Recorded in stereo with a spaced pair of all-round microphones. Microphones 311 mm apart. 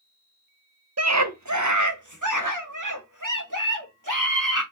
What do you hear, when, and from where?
1.0 s a scream: 55° right (ahead or behind), 0.6 m; by 4.6 s 80° right, 3 m